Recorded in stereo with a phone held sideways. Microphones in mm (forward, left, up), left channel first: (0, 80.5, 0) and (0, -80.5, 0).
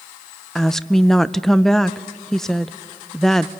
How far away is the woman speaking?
About 0.5 m.